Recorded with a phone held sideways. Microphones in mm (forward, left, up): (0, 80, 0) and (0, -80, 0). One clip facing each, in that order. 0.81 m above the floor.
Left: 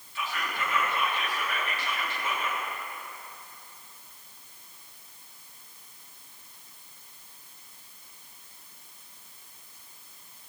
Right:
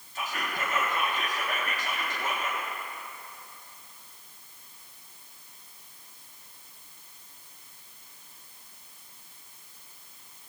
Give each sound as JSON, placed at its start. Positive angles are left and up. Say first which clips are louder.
{"t": 0.1, "sound": "whispering", "louder": "even", "side_deg": -45, "distance_m": 1.4}